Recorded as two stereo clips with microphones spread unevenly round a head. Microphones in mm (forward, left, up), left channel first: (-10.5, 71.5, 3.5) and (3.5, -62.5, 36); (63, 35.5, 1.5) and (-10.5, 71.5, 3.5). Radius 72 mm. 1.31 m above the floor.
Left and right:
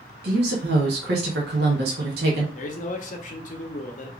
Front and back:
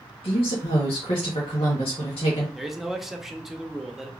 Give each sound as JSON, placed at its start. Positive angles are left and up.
{"t": 0.2, "sound": "a woman speaking", "azimuth_deg": -70, "distance_m": 1.0}
{"t": 2.5, "sound": "a man speaking", "azimuth_deg": 65, "distance_m": 0.8}